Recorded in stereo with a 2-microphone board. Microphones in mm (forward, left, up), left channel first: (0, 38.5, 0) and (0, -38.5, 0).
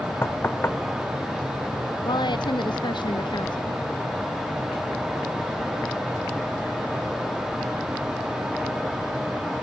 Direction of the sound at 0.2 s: 30° left (ahead or behind).